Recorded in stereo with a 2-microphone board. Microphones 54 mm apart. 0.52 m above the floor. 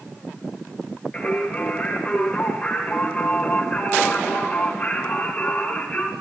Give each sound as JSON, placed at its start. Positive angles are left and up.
{"t": 1.1, "sound": "singing", "side_deg": 20, "distance_m": 2.5}